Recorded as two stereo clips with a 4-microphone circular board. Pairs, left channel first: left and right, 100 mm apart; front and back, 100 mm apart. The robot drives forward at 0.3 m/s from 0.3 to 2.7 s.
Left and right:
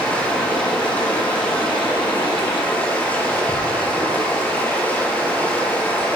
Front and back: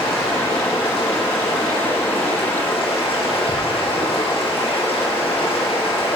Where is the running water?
15° left, 6.5 m.